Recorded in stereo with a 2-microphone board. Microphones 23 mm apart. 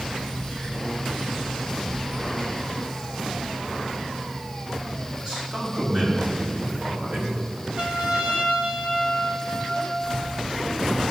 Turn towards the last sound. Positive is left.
turn(degrees=-55)  # may be behind; listen again after turning